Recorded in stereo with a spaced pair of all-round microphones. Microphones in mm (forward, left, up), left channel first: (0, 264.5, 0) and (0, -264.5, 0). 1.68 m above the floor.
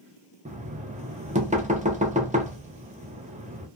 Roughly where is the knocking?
Centre.